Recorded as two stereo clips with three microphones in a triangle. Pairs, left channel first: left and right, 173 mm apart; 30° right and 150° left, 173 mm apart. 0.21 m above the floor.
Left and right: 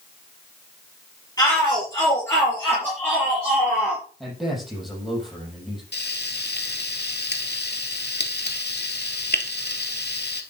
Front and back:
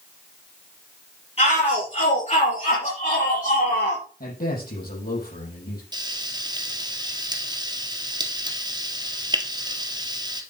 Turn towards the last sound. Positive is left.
turn(degrees=85)